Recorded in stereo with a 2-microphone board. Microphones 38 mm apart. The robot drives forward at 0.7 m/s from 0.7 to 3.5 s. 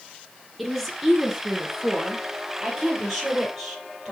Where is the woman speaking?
5° right (ahead or behind), 1.8 m; by 4.1 s centre (ahead or behind), 3.5 m.